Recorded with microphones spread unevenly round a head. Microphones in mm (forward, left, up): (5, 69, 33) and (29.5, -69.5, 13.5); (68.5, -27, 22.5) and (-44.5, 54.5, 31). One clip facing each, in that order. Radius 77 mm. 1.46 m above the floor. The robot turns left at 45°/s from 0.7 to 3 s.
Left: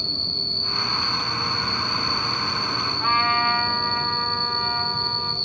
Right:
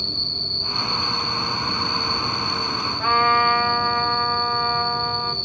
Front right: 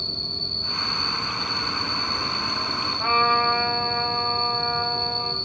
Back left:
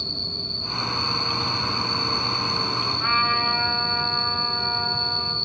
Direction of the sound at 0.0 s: 125° right.